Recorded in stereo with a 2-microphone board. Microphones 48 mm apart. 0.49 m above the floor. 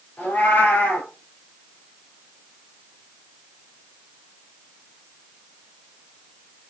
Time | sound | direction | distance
0.2 | a cat meowing | 40° left (ahead or behind) | 4 m